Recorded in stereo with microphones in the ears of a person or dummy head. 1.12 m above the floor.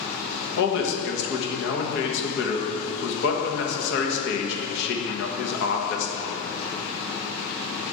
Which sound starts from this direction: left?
A man speaking, at 0.6 s.